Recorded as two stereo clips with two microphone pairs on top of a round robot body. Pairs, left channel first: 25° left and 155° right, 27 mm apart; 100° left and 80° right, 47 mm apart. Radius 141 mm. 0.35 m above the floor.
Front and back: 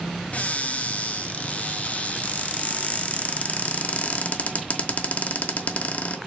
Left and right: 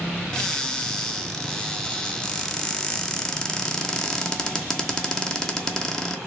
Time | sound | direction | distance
0.3 | a cupboard door | 20° left | 1.0 m